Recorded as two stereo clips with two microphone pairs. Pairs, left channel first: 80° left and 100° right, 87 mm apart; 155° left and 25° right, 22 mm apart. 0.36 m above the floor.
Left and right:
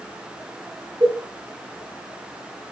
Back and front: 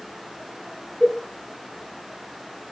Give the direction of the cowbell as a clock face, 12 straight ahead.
4 o'clock.